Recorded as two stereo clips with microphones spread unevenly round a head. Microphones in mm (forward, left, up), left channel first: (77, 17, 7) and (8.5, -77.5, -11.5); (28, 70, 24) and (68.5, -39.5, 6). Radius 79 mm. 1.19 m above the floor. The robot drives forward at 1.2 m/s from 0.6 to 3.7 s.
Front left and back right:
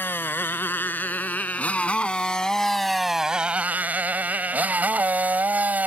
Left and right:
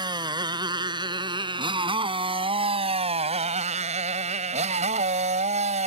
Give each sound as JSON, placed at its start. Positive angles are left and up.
{"t": 0.0, "sound": "a motorcycle", "azimuth_deg": -15}